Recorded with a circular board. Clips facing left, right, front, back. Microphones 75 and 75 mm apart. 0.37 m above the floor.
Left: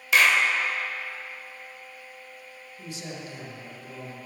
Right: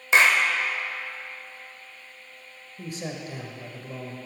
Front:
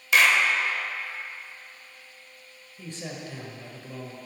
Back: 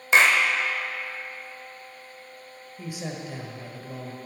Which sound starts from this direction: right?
A man speaking, at 2.8 s.